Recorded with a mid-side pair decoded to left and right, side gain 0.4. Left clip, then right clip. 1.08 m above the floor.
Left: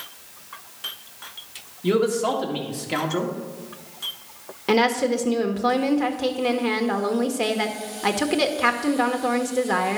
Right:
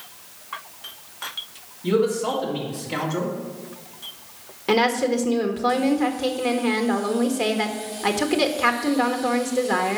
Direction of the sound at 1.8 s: 45° left.